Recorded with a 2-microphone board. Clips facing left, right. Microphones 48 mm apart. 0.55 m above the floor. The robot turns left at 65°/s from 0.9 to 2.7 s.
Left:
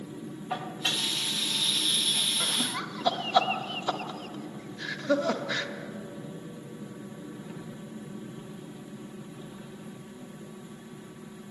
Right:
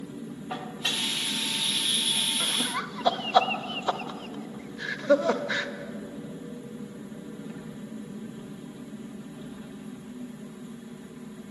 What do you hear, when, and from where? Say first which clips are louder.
0.5 s dishes clattering: left 1 dB; centre (ahead or behind), 1.0 m; by 1.1 s 10° left (ahead or behind), 1.0 m
2.4 s laughter: right 2 dB; centre (ahead or behind), 0.9 m; by 5.7 s 10° right (ahead or behind), 0.9 m